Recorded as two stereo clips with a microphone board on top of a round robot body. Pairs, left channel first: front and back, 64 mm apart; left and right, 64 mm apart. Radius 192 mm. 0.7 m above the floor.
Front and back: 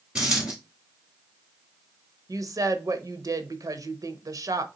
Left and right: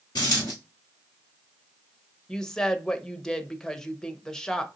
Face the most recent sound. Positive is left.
turn(degrees=170)